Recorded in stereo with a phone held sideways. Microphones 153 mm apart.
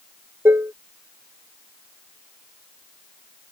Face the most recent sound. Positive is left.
turn(degrees=-15)  # may be behind; listen again after turning